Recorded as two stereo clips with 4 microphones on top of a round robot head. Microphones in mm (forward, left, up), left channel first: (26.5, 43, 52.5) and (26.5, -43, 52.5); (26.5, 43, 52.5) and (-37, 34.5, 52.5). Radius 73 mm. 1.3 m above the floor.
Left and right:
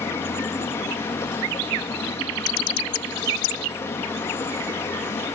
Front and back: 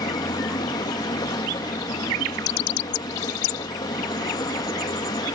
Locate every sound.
0.0 s running water: 25° left, 1.2 m